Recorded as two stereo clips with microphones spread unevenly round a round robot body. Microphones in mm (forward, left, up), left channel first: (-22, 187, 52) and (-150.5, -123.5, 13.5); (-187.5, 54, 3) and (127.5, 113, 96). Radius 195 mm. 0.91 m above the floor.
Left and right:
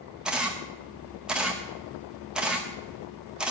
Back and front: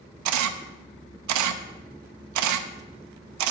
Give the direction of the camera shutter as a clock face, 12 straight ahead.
1 o'clock.